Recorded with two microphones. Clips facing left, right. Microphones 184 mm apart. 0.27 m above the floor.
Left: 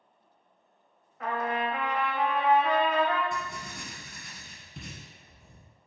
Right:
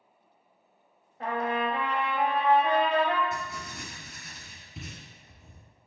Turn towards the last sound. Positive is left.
turn(degrees=0)  # may be behind; listen again after turning